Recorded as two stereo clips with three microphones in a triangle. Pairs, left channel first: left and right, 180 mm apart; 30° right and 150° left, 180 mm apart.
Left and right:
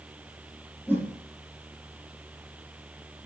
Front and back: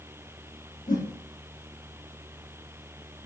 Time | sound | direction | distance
0.9 | a whoosh | 10° left | 3.5 m